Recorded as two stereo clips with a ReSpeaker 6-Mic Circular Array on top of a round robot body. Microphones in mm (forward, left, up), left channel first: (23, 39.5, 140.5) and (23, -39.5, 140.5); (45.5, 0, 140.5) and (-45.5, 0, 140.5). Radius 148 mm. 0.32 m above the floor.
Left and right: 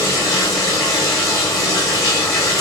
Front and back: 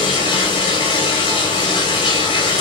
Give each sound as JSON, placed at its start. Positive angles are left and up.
{"t": 0.0, "sound": "running water", "azimuth_deg": 40, "distance_m": 4.0}